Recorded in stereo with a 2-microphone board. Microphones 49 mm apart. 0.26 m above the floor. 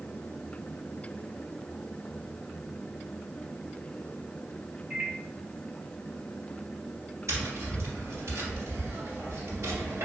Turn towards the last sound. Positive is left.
turn(degrees=-75)  # may be behind; listen again after turning